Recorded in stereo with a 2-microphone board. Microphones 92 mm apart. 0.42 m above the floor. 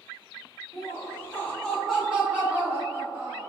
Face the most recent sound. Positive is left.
turn(degrees=-20)  # may be behind; listen again after turning